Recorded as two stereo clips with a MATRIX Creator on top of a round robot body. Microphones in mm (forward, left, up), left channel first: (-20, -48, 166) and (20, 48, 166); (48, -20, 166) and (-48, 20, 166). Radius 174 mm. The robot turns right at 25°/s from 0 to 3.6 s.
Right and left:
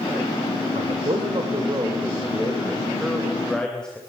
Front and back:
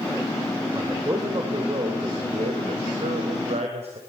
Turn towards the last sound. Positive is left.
turn(degrees=165)